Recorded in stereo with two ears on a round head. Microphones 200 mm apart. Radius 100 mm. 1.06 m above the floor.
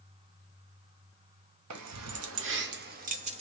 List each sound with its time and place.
1.7 s keys jangling: 90° right, 0.7 m; by 3.4 s 30° right (ahead or behind), 1.0 m